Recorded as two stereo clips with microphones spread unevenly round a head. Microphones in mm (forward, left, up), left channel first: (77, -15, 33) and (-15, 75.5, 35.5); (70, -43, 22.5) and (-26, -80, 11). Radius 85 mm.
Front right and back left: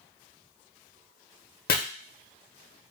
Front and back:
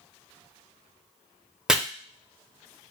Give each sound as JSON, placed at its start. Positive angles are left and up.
{"t": 1.7, "sound": "chopping", "azimuth_deg": -75, "distance_m": 0.5}